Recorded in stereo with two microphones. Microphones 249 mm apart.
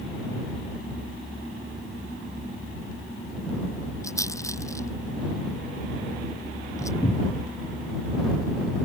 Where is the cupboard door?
20° left (ahead or behind).